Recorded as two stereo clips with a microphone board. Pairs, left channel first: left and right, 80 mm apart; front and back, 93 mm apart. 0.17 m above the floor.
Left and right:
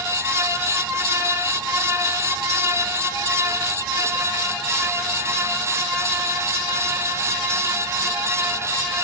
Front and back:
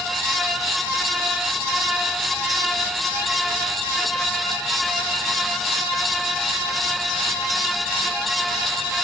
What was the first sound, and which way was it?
Only background noise.